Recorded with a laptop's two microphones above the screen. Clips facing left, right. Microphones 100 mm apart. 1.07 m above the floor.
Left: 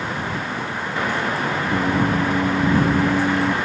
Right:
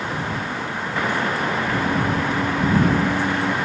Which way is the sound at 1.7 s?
15° left (ahead or behind).